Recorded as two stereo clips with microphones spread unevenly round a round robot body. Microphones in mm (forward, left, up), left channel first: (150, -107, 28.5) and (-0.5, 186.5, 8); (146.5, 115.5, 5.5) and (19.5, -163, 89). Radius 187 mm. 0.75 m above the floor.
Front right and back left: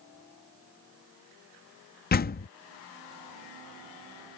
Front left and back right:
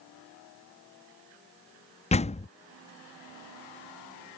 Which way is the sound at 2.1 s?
Straight ahead.